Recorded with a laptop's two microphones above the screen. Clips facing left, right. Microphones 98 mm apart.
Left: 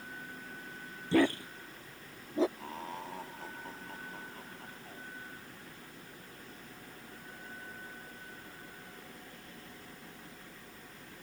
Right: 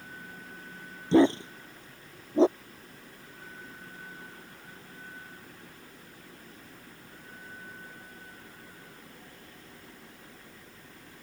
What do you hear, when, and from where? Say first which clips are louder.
1.1 s a dog barking: right 7 dB; 20° right (ahead or behind); by 2.5 s 30° right (ahead or behind)
2.6 s laughter: left 9 dB; 85° left